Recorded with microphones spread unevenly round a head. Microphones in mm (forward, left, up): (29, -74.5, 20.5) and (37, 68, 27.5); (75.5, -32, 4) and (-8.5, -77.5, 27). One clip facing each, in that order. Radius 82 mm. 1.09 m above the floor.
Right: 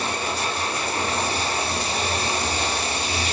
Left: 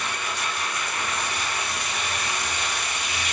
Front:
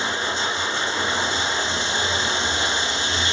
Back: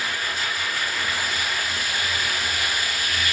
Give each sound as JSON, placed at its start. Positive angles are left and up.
{"t": 0.0, "sound": "running water", "azimuth_deg": -35, "distance_m": 0.8}